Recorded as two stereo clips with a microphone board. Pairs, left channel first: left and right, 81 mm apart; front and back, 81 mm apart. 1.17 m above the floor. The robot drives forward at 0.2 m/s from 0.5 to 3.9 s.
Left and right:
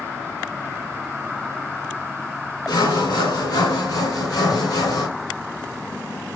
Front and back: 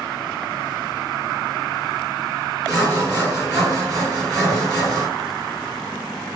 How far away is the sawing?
About 3 m.